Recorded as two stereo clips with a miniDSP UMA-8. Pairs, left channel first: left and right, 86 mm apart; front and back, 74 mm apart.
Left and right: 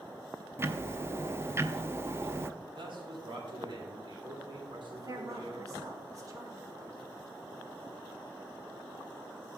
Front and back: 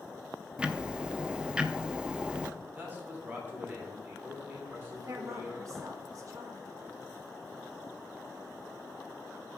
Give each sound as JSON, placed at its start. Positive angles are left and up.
{"t": 0.6, "sound": "ticking", "azimuth_deg": -115, "distance_m": 0.5}
{"t": 2.8, "sound": "a man speaking", "azimuth_deg": -115, "distance_m": 2.5}
{"t": 4.9, "sound": "a woman speaking", "azimuth_deg": -140, "distance_m": 1.9}